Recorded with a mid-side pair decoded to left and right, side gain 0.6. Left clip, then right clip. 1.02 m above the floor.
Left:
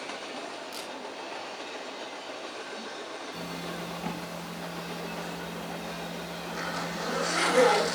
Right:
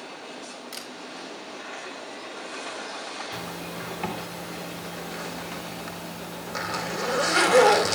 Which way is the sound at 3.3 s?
55° right.